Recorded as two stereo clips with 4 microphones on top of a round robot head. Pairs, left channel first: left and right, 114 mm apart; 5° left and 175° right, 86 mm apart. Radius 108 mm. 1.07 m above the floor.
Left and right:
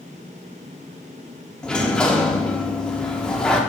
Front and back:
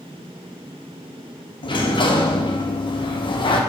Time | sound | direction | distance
1.6 | a sliding door | 10° left | 1.3 m